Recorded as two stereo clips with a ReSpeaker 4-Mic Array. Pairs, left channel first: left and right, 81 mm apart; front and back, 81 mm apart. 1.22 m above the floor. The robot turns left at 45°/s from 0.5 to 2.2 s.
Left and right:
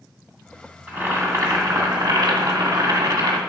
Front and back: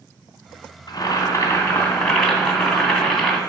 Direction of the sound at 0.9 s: 25° right.